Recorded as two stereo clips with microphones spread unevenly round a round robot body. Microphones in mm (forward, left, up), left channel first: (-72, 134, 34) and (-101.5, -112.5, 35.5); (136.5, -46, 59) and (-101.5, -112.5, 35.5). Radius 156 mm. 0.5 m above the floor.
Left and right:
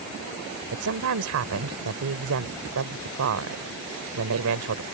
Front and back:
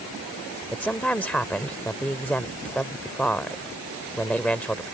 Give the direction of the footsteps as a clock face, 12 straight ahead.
I don't hear footsteps.